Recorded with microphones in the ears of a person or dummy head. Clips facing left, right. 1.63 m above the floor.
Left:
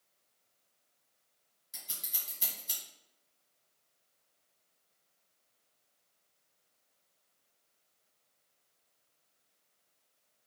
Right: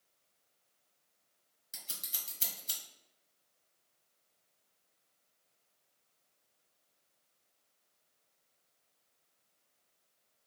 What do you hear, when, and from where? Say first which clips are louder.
1.7 s scissors: left 1 dB; 25° right (ahead or behind), 1.4 m